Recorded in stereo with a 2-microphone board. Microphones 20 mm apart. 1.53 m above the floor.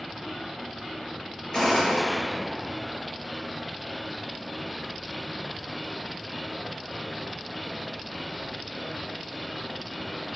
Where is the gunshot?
20° left (ahead or behind), 1.1 m.